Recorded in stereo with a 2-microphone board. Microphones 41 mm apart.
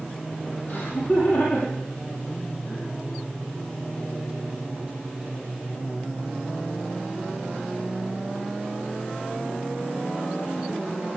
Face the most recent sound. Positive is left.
turn(degrees=30)  # may be behind; listen again after turning